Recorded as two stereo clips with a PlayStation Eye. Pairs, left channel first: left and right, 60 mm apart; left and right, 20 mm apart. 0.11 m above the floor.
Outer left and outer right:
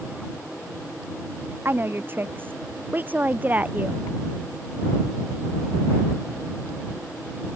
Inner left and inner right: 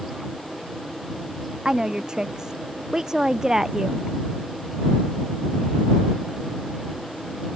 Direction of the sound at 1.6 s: 40° right (ahead or behind).